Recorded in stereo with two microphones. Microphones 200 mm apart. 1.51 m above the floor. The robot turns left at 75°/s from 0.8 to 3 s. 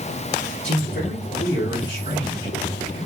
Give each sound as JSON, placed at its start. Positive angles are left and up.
{"t": 0.6, "sound": "a man speaking", "azimuth_deg": 140, "distance_m": 4.0}